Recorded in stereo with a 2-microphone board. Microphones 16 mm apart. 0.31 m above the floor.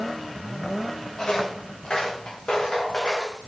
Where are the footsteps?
65° left (ahead or behind), 3.5 m; by 3.5 s 80° left, 3.5 m.